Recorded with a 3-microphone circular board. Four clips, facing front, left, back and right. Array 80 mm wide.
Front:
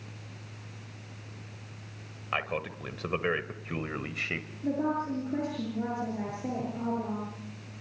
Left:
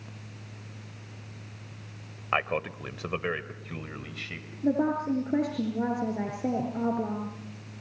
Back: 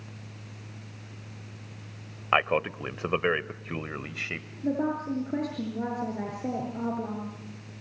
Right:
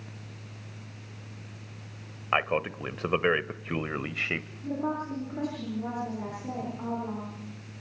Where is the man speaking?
170° right, 1.1 m; by 4.5 s 80° right, 1.3 m.